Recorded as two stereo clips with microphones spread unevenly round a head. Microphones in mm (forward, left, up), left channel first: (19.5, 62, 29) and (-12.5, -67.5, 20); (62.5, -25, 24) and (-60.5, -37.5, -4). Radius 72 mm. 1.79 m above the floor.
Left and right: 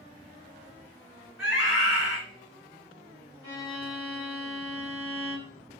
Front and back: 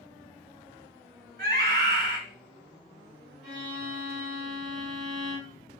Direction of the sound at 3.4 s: 130° left.